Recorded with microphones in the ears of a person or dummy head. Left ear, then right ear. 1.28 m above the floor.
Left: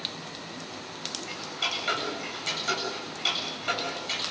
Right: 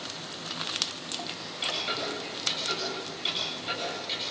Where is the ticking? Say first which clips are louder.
Left 3 dB; 40° left (ahead or behind), 7.5 m.